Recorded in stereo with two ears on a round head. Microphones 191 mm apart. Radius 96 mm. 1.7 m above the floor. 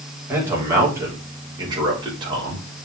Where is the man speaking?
10° right (ahead or behind), 4.5 m; by 2.7 s 25° right (ahead or behind), 5 m.